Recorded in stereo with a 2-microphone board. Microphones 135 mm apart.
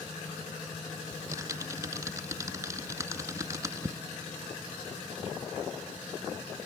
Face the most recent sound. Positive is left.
turn(degrees=-25)  # may be behind; listen again after turning